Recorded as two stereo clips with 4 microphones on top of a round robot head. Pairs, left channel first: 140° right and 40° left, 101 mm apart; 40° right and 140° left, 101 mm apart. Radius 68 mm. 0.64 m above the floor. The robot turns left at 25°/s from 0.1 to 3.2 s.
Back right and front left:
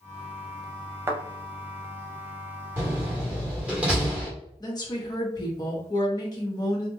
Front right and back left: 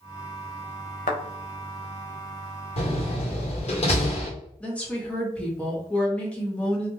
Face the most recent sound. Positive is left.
turn(degrees=-115)